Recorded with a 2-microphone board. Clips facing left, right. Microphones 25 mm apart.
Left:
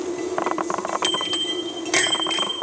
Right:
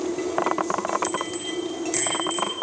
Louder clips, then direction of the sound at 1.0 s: Left 5 dB; 70° left (ahead or behind).